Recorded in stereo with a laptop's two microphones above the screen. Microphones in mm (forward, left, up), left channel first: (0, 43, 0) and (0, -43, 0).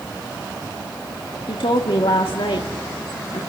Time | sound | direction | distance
1.5 | a woman speaking | 80° left | 1.7 m